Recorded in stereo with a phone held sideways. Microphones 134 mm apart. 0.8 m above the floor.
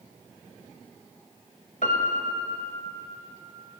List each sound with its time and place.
1.8 s a piano: 70° left (ahead or behind), 1.6 m